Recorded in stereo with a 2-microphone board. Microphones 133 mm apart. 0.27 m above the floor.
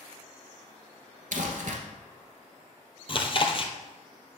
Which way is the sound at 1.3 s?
80° right.